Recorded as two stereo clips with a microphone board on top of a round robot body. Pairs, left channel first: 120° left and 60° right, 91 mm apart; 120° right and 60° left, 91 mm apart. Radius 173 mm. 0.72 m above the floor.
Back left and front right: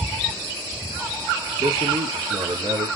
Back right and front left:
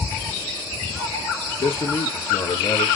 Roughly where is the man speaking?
Right.